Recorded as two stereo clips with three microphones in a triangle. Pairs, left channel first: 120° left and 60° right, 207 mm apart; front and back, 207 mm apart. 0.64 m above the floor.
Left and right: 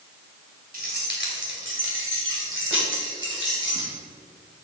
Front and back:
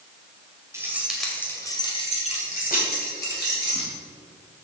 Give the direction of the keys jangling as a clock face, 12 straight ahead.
3 o'clock.